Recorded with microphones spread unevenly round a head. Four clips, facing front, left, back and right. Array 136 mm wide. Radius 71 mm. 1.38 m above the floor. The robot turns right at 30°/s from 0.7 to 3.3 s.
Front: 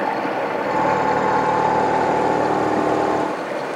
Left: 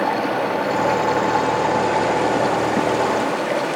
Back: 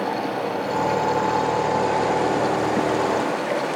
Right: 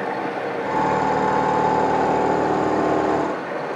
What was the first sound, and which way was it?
Running water, 60° left.